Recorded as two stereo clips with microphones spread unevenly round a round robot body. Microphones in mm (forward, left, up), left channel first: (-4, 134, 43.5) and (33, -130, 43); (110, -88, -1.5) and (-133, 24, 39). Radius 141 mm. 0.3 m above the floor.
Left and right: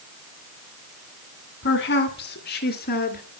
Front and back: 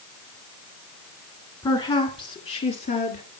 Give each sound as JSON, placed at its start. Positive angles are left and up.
{"t": 1.6, "sound": "a woman speaking", "azimuth_deg": 50, "distance_m": 2.5}